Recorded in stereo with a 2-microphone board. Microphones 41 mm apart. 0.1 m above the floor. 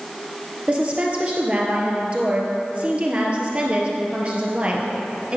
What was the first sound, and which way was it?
A woman speaking, 30° right (ahead or behind).